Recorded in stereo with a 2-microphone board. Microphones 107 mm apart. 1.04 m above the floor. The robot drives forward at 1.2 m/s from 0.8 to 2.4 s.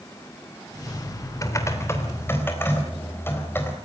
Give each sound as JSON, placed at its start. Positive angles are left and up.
{"t": 1.4, "sound": "typing on a keyboard", "side_deg": 30, "distance_m": 2.5}